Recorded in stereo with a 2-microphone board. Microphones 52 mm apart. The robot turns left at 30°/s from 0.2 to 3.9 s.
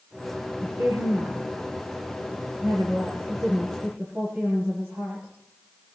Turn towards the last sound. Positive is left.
turn(degrees=-25)  # may be behind; listen again after turning